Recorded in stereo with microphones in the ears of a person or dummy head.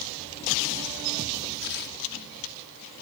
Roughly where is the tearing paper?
Left.